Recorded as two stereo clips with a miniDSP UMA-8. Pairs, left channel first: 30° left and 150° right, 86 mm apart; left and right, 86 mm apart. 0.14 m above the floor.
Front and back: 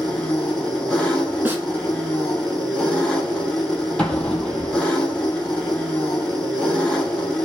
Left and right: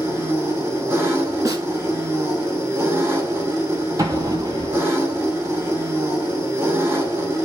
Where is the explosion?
45° right, 0.7 m.